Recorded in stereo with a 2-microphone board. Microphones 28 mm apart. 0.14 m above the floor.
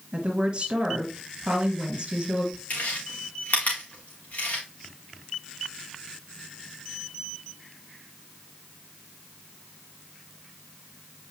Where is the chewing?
70° left (ahead or behind), 3.5 m.